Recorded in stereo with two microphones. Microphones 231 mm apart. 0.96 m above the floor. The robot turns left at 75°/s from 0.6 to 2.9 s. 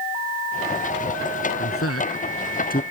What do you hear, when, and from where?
1.6 s a man speaking: 55° left (ahead or behind); by 2.8 s 30° left (ahead or behind)